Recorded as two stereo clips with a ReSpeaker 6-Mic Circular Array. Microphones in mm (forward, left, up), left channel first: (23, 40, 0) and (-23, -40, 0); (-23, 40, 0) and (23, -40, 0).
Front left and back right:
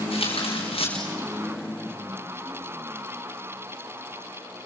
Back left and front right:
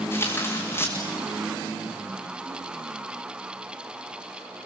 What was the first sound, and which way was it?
Tearing paper, 55° left.